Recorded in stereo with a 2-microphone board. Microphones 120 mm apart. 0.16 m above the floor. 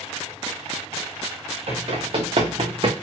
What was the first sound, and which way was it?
Running footsteps, 55° right (ahead or behind).